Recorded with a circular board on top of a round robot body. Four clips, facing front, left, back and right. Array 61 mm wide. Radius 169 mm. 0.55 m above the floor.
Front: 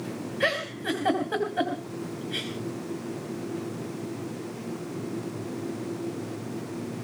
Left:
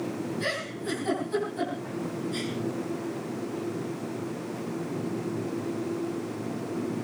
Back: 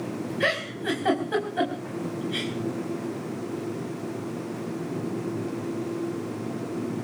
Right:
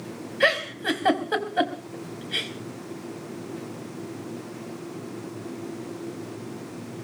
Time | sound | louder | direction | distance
0.4 | a giggle | right 8 dB, back 1 dB | 95° right | 4 m